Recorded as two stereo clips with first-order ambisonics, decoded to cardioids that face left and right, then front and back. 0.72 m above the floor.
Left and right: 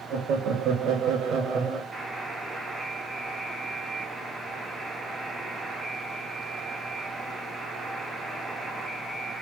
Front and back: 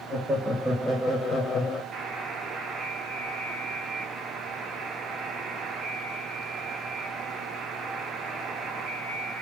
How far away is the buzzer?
About 1.0 m.